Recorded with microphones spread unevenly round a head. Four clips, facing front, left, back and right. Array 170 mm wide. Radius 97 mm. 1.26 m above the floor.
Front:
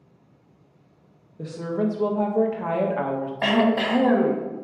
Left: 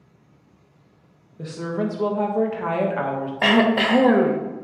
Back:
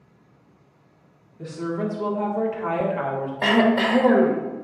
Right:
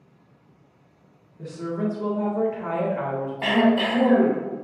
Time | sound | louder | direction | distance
1.4 | a woman speaking | left 2 dB, front 1 dB | 35° left | 1.1 m
3.4 | throat clearing | left 2 dB, back 2 dB | 120° left | 1.1 m